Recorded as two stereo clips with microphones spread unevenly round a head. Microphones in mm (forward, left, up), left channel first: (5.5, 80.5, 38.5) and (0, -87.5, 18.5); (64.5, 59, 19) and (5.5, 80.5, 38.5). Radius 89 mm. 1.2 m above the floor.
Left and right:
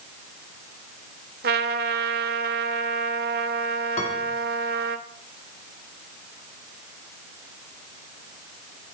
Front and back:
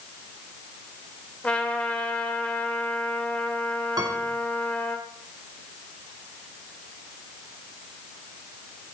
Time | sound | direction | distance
1.4 | a trumpet | 115° right | 1.1 m
4.0 | a piano | 140° left | 2.5 m